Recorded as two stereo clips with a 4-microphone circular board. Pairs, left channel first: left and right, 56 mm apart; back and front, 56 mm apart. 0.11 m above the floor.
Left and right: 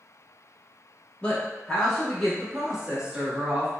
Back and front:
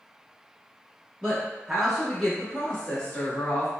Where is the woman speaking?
50° left, 1.1 m; by 3.7 s 145° right, 1.4 m.